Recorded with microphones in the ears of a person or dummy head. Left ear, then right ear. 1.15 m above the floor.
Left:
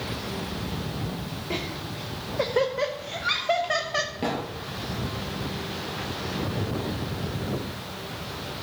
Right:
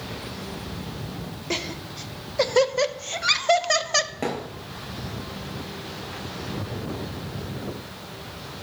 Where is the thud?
35° right (ahead or behind), 3.5 m.